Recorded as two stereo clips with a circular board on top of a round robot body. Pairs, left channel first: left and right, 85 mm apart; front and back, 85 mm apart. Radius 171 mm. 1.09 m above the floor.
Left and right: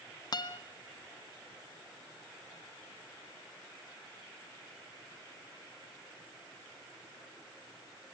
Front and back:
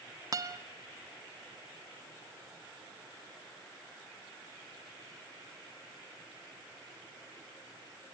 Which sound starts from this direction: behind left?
A guitar, at 0.3 s.